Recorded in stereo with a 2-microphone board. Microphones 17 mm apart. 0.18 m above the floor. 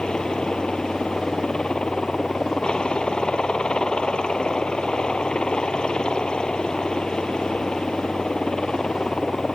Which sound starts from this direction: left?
A helicopter, at 0.0 s.